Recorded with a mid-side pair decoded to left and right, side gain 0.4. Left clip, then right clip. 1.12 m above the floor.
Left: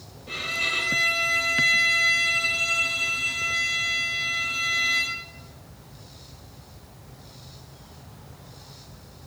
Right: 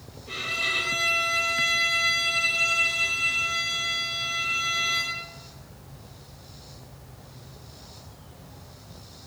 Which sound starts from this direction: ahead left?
A violin, at 0.3 s.